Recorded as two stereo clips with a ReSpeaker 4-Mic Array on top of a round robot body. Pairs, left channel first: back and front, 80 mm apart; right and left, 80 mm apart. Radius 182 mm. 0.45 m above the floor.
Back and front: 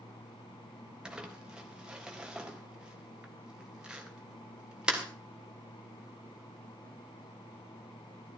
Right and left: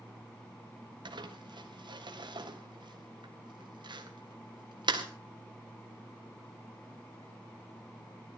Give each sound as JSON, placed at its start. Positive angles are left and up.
{"t": 1.1, "sound": "crumpling", "azimuth_deg": 80, "distance_m": 3.5}